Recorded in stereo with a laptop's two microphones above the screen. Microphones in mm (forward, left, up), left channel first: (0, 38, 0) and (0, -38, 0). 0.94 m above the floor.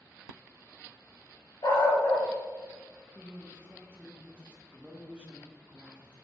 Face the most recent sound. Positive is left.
turn(degrees=-20)  # may be behind; listen again after turning